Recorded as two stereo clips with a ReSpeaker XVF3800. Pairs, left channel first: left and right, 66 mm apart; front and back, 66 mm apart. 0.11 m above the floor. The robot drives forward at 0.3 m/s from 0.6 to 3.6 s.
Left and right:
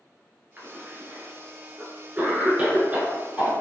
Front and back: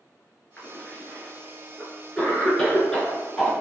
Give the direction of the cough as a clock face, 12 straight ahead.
1 o'clock.